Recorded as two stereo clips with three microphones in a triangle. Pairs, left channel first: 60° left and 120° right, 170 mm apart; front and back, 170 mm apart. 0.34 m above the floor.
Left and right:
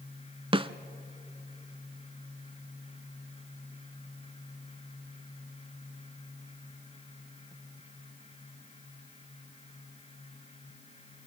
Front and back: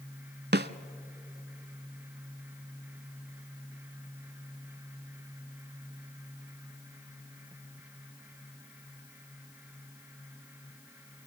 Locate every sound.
0.5 s a snare drum: 175° right, 0.6 m